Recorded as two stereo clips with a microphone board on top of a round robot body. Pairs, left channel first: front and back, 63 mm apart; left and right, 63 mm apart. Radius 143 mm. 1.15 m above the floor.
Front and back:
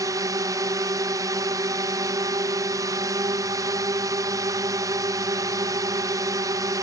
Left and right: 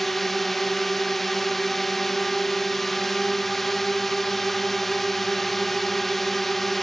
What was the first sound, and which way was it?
A drone, 175° left.